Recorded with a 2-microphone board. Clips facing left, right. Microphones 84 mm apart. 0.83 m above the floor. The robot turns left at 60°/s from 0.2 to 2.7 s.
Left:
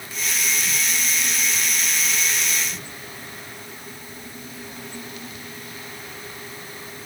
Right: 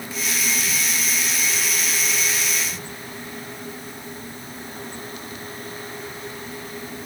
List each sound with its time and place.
Only background noise.